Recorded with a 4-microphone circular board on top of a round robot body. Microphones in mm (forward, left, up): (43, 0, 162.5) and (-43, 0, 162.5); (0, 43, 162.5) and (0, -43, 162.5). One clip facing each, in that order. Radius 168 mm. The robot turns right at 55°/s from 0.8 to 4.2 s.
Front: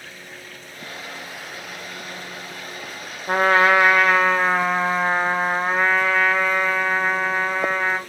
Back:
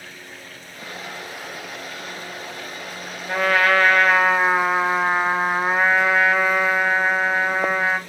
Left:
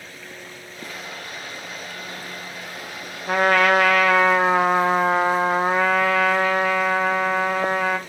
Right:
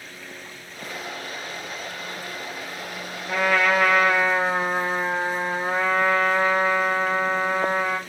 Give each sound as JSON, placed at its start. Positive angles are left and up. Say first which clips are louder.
{"t": 3.3, "sound": "a trumpet", "louder": "front 2 dB, left 4 dB", "azimuth_deg": 45, "distance_m": 0.6}